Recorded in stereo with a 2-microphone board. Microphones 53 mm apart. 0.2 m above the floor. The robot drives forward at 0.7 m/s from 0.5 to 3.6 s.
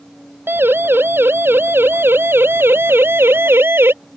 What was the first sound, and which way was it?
A siren, 45° right (ahead or behind).